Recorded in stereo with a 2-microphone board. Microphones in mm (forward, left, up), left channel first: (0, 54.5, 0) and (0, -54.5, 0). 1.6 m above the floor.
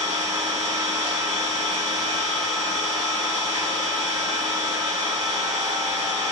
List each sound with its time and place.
0.0 s an engine running: 65° right (ahead or behind), 5 m